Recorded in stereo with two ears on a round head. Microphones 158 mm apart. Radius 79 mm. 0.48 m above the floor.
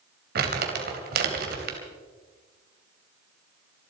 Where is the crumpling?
60° right (ahead or behind), 2.5 m.